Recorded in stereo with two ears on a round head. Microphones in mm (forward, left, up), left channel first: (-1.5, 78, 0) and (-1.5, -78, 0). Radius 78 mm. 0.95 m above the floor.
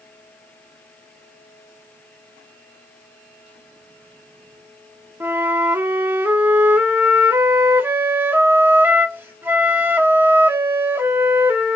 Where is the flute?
10° right (ahead or behind), 1.1 m.